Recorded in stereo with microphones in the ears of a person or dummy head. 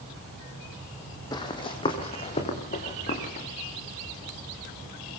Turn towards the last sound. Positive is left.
turn(degrees=40)  # may be behind; listen again after turning